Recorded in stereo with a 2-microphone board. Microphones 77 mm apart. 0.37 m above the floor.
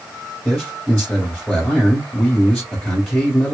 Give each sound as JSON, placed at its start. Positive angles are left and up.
{"t": 0.5, "sound": "a man speaking", "side_deg": 15, "distance_m": 1.6}